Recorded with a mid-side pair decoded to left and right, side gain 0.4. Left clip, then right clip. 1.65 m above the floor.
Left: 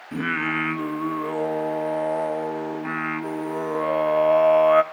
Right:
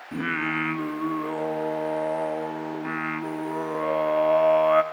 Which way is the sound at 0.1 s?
15° left.